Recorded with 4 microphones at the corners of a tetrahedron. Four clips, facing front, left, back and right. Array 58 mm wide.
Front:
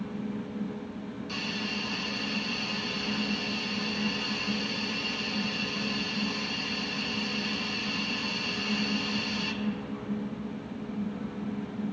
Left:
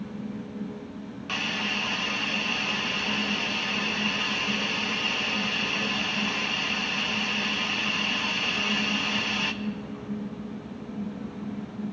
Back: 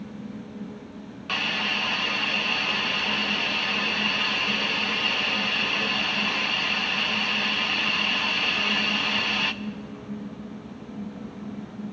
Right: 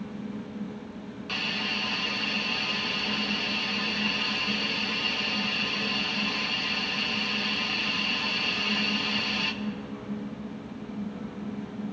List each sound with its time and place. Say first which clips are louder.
1.3 s a hiss: left 2 dB, back 9 dB; 170° left, 0.6 m